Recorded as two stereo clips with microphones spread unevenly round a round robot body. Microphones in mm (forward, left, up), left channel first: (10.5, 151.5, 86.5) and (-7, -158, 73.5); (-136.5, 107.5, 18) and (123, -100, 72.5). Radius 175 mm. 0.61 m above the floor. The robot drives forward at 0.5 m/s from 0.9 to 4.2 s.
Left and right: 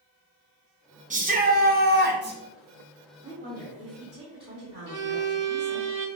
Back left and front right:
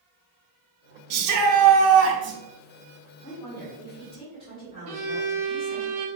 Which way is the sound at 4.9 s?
85° right.